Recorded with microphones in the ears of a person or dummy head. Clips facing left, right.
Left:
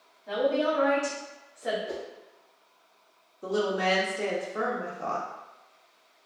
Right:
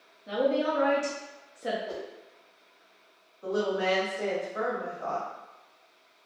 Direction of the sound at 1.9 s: 30° left (ahead or behind).